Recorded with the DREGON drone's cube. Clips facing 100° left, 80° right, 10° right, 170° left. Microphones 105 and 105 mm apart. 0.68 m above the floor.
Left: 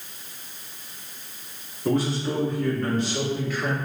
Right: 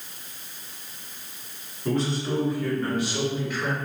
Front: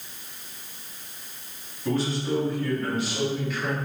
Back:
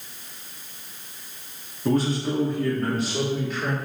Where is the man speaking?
175° left, 1.6 m; by 3.8 s 145° right, 2.5 m.